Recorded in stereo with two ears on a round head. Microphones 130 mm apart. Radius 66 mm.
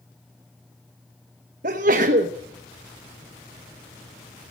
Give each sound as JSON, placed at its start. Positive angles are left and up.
{"t": 1.6, "sound": "a sneeze", "side_deg": -55, "distance_m": 1.0}